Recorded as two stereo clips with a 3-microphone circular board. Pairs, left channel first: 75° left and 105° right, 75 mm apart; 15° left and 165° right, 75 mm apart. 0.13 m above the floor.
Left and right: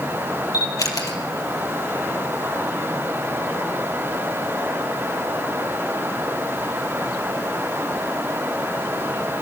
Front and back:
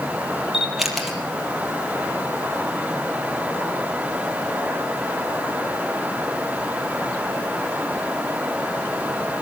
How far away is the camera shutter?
About 4 m.